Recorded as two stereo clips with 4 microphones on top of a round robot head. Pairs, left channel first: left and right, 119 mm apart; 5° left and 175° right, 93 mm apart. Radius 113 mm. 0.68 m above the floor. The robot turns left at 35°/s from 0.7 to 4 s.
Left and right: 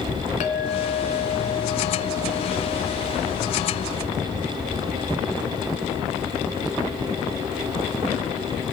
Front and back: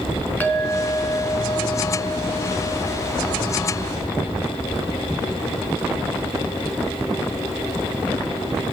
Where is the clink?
80° left, 4.5 m; by 3.6 s 20° right, 4.5 m.